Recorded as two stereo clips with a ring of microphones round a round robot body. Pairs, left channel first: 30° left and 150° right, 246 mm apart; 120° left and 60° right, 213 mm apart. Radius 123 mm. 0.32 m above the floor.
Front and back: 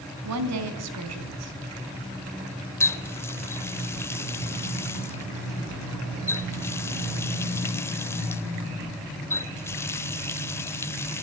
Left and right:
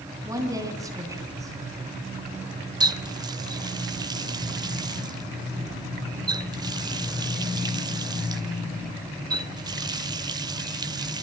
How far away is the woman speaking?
About 3.5 m.